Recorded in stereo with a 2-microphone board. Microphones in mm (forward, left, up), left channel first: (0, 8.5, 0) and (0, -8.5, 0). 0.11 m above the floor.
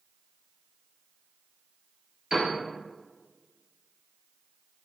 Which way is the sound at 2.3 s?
45° right (ahead or behind).